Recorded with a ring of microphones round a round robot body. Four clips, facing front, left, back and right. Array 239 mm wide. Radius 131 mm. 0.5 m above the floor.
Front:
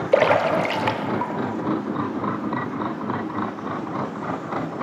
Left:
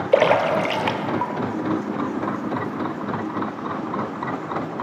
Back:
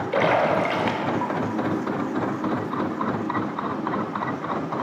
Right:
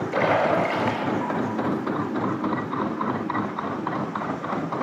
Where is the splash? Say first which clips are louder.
Left 4 dB, front 3 dB; 50° left, 0.5 m.